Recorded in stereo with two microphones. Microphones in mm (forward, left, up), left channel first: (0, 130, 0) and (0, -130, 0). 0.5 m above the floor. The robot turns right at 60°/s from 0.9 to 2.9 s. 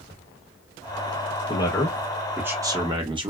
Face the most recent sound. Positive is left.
turn(degrees=-20)  # may be behind; listen again after turning